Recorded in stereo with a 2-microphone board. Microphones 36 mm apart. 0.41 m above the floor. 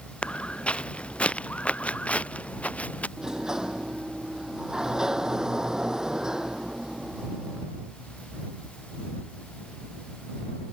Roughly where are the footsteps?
Left.